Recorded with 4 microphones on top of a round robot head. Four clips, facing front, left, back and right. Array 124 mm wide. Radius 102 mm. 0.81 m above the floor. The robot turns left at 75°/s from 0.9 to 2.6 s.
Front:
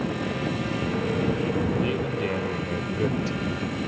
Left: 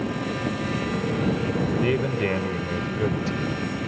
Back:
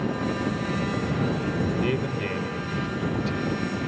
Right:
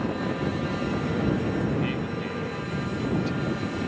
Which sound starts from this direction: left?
A man speaking, at 1.8 s.